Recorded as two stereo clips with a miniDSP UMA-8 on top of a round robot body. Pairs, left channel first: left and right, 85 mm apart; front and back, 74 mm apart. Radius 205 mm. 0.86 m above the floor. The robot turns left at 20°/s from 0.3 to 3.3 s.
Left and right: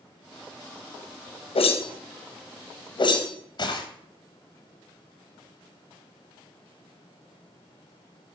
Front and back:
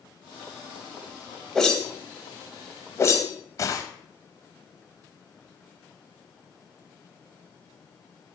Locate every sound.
1.6 s a whoosh: 85° left, 0.7 m; by 3.8 s 50° left, 0.7 m